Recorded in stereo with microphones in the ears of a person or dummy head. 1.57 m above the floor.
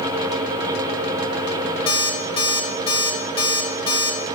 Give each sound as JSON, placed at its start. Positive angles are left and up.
{"t": 1.9, "sound": "an alarm clock", "side_deg": 30, "distance_m": 2.0}